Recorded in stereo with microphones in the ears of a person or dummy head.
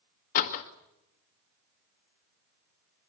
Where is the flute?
I don't hear a flute.